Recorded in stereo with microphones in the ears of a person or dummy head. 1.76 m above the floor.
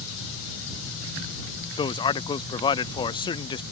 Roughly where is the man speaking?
Left.